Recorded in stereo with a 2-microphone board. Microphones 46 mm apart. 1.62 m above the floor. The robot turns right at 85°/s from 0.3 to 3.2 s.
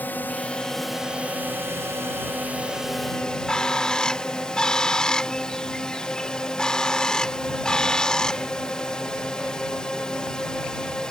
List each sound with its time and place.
0.0 s a drone: 135° left; by 11.1 s 20° left
3.2 s a bird: 15° left (ahead or behind)